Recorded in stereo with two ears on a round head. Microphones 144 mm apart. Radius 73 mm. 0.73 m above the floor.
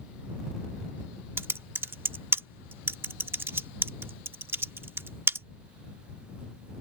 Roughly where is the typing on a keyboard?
Centre.